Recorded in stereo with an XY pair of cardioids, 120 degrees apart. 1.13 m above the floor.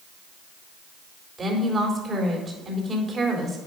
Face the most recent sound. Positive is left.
turn(degrees=-35)